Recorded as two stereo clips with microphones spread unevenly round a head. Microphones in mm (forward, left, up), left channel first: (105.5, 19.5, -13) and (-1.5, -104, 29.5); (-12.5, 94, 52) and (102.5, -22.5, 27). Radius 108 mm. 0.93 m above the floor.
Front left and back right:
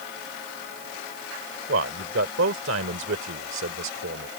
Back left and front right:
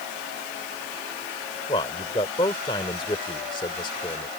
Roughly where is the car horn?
I don't hear a car horn.